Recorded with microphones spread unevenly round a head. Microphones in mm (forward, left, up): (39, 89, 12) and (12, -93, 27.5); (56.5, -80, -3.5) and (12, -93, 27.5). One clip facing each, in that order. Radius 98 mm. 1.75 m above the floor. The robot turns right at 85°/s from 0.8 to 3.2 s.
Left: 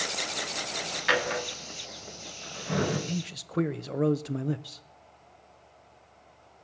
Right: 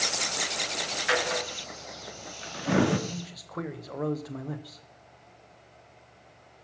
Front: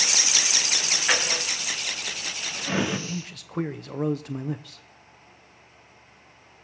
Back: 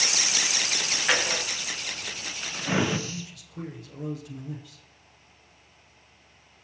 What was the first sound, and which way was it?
A drawer, 120° left.